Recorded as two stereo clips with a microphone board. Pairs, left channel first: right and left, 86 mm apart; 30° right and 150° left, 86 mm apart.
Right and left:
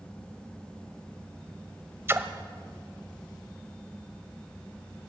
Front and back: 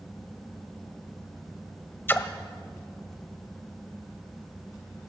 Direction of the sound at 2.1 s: 30° left.